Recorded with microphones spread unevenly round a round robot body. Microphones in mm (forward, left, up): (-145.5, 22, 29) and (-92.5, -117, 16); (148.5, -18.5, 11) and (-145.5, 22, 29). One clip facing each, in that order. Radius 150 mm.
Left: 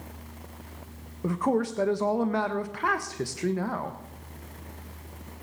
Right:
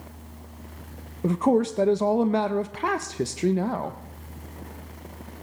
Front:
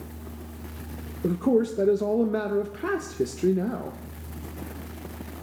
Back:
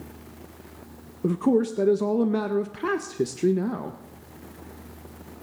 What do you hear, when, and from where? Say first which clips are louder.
1.2 s a man speaking: right 5 dB, back 1 dB; 110° right, 0.6 m